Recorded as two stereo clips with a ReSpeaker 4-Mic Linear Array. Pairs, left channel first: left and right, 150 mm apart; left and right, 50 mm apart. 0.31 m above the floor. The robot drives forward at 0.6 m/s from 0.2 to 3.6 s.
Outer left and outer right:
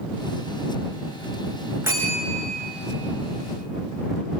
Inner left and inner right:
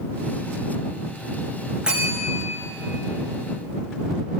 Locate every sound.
1.8 s a bell: 15° right (ahead or behind), 6 m